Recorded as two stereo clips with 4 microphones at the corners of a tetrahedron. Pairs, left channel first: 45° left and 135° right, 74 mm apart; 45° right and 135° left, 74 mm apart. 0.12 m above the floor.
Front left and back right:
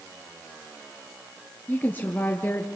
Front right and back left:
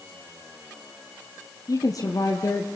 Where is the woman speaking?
15° right, 2.5 m.